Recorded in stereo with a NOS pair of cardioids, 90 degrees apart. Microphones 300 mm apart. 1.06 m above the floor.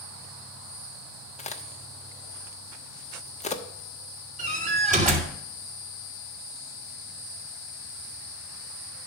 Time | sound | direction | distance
1.4 | a crack | 25° left | 1.0 m
4.4 | a door slam | 25° right | 3 m